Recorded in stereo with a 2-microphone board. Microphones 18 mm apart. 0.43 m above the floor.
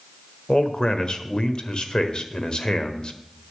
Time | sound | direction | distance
0.5 | a man speaking | 50° left (ahead or behind) | 1.2 m